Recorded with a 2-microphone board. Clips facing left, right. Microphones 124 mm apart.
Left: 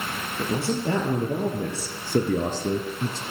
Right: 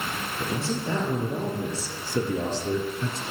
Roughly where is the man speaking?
Left.